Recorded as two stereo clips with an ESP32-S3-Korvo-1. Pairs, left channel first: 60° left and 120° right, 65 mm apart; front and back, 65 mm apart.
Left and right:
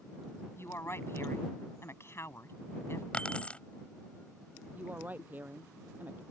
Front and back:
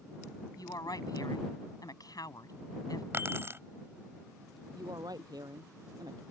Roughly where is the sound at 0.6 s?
Ahead.